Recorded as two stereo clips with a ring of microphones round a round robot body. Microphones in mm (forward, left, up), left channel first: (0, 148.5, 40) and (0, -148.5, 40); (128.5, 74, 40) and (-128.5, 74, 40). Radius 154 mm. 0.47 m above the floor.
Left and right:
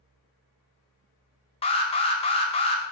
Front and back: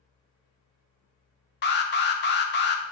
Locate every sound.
1.6 s an alarm: 25° left, 0.5 m